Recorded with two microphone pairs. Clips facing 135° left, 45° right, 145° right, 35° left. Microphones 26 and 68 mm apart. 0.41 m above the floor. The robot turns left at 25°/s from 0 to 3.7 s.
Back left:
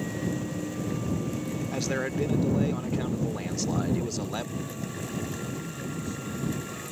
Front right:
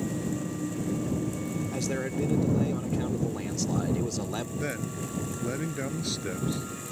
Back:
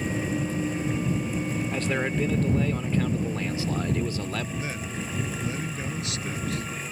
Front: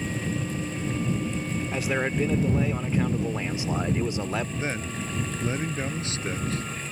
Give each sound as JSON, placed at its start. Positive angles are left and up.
{"t": 1.7, "sound": "a man speaking", "azimuth_deg": 105}
{"t": 4.6, "sound": "a man speaking", "azimuth_deg": -25}